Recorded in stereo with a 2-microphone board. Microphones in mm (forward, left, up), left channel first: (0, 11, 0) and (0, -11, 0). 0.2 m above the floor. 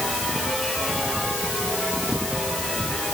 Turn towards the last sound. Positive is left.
No sound to turn to.